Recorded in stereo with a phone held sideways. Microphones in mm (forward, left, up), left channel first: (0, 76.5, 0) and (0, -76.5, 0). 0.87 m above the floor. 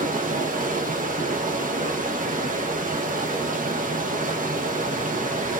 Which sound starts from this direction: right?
Running water, at 0.0 s.